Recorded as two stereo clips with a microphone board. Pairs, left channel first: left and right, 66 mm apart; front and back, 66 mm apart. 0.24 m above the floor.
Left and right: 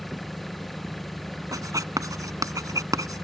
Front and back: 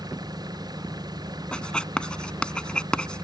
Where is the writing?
75° right.